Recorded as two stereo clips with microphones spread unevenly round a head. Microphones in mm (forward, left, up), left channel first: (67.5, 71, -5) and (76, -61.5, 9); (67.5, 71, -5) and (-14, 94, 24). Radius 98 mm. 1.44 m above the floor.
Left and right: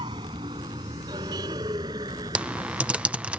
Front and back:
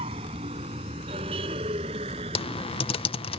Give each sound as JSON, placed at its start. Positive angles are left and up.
{"t": 0.0, "sound": "a vehicle", "azimuth_deg": -155}
{"t": 2.4, "sound": "typing on a keyboard", "azimuth_deg": -5}